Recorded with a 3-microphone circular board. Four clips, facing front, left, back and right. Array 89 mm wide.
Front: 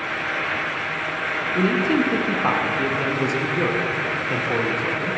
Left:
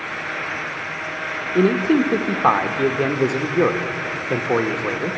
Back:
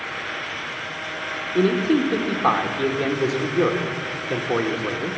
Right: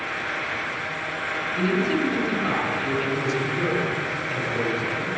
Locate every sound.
1.6 s a man speaking: 100° left, 1.3 m